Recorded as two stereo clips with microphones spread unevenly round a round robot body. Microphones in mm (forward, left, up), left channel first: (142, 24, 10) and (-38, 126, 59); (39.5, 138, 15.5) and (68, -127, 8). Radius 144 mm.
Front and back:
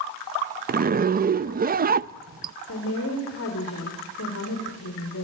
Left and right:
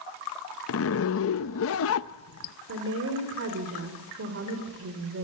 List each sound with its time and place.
0.7 s a zipper: 100° left, 0.6 m
2.7 s a woman speaking: 45° right, 3.5 m